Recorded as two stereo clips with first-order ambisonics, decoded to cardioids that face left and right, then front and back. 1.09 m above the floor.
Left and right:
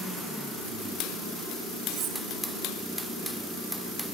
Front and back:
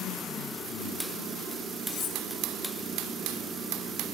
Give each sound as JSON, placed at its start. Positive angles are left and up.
{"t": 1.9, "sound": "cutlery clinking", "azimuth_deg": -65, "distance_m": 4.5}